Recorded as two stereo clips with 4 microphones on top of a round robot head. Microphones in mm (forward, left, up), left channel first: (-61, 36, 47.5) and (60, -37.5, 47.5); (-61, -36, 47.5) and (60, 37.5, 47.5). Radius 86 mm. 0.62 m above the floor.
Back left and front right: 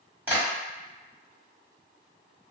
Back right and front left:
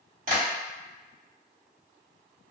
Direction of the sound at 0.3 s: 45° left.